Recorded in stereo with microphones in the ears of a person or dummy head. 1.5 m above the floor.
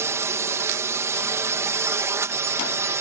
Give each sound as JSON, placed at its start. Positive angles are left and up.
{"t": 0.0, "sound": "a drone", "side_deg": -15}